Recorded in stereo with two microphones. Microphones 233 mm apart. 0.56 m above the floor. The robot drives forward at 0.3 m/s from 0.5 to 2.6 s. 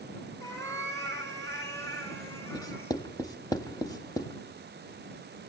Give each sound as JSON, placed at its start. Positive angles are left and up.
{"t": 0.4, "sound": "a cat meowing", "side_deg": 15, "distance_m": 2.5}
{"t": 2.5, "sound": "writing", "side_deg": 15, "distance_m": 0.9}